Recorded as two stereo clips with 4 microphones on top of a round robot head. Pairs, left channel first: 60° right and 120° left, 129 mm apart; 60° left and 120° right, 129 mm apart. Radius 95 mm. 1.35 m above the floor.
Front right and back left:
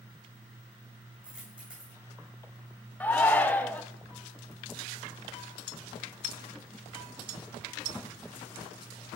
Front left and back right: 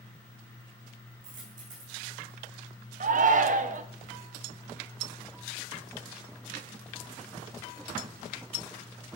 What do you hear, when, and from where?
1.2 s a dropped coin: 155° right, 8 m
3.0 s a shout: 135° right, 1.3 m